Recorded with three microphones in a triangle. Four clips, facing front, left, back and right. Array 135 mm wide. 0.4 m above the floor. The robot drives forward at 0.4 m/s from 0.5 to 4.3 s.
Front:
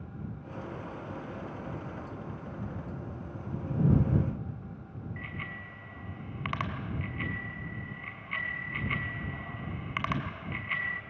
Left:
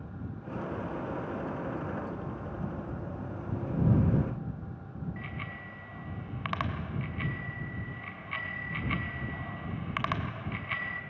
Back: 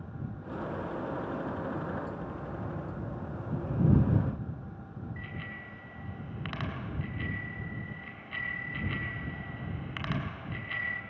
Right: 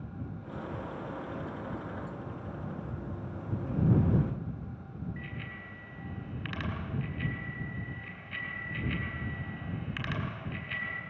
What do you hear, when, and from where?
5.2 s a bicycle bell: 80° left, 2.5 m